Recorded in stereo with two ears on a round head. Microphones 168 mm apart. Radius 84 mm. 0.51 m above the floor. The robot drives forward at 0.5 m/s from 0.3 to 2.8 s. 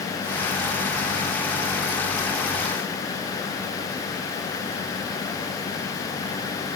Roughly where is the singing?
No singing in this recording.